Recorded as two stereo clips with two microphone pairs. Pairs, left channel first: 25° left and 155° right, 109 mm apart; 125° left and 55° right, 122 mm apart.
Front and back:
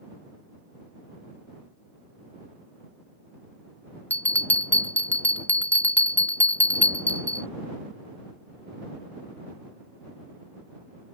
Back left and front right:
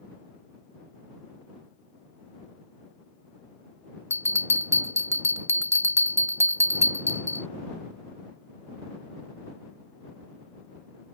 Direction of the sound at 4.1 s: 25° right.